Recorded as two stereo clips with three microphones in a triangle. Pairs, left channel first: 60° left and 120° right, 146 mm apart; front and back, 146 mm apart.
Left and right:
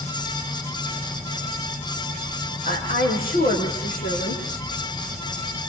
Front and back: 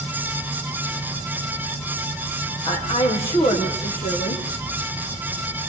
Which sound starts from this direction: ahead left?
A woman speaking, at 2.6 s.